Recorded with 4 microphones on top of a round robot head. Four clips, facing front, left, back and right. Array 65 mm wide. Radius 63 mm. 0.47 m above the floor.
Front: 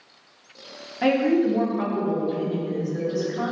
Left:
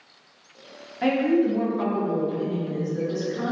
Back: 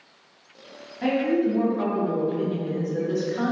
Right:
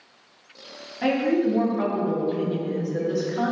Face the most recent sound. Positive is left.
turn(degrees=-125)